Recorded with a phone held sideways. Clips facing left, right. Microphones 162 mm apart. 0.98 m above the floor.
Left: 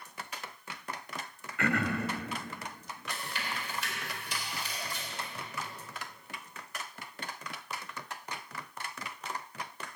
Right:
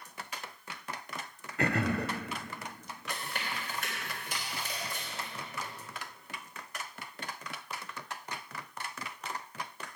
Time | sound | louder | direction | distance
1.6 | throat clearing | right 1 dB | 35° right (ahead or behind) | 0.9 m
3.1 | chewing | even | 50° right (ahead or behind) | 3 m